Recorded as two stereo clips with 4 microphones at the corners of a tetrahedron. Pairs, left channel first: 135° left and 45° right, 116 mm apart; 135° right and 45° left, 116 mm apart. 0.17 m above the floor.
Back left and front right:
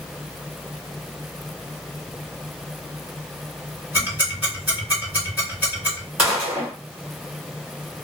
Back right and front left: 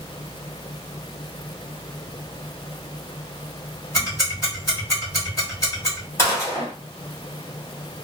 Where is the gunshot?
110° right, 1.7 m.